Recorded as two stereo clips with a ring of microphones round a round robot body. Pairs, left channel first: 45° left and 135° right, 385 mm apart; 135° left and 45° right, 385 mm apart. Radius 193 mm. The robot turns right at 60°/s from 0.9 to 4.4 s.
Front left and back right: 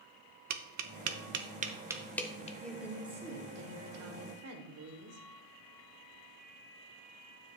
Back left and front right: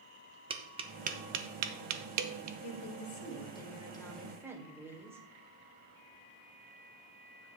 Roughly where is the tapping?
Behind right.